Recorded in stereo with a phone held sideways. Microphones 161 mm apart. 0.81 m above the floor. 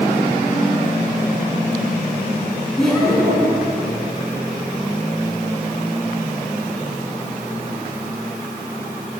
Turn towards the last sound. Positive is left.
turn(degrees=5)  # may be behind; listen again after turning